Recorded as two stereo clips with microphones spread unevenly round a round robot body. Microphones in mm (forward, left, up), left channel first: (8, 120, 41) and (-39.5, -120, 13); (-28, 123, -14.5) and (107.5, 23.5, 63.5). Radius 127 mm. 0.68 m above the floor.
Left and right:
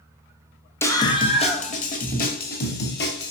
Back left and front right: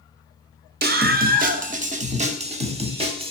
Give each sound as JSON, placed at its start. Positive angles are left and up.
{"t": 0.8, "sound": "a scream", "azimuth_deg": -5, "distance_m": 1.3}